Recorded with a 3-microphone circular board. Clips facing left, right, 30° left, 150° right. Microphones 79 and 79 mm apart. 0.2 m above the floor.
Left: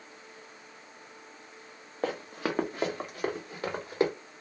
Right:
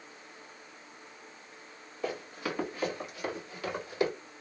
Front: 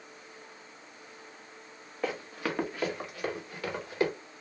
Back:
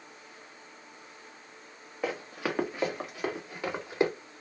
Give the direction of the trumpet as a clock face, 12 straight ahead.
I don't hear a trumpet.